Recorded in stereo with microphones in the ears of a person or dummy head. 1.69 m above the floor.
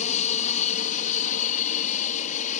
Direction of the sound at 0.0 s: 40° left (ahead or behind).